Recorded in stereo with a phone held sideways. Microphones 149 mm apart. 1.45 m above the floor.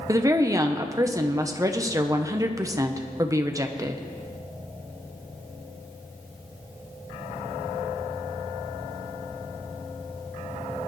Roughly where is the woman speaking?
Right.